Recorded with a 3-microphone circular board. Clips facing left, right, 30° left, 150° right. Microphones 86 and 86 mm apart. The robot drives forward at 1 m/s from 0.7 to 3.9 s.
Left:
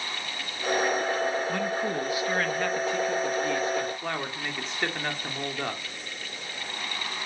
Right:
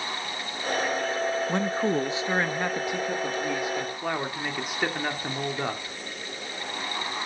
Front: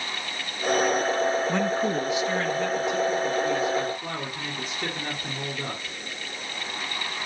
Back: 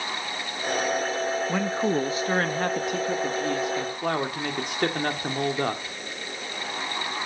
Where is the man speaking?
55° right, 0.8 m; by 6.0 s 170° right, 2.5 m.